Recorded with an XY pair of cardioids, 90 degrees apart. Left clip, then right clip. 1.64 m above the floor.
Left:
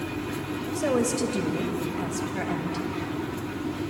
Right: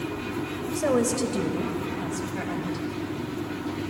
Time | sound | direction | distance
0.8 | a woman speaking | 25° right | 1.6 m